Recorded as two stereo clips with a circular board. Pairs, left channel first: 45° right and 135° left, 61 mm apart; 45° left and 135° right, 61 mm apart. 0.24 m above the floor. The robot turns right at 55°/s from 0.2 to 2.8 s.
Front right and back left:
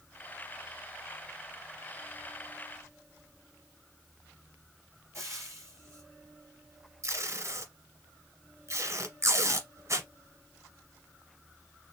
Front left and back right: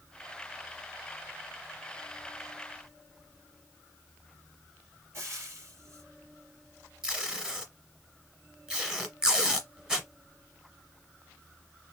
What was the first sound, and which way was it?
Frying, 175° left.